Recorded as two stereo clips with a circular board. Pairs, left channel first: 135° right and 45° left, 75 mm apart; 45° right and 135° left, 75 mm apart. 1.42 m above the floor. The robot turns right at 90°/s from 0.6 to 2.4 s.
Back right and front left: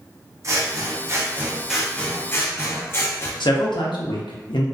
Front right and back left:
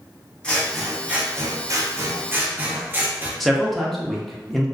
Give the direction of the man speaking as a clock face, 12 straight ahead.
4 o'clock.